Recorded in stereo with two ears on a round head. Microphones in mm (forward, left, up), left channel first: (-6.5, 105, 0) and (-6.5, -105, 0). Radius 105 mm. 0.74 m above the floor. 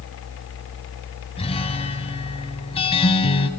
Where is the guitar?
25° left (ahead or behind), 2 m.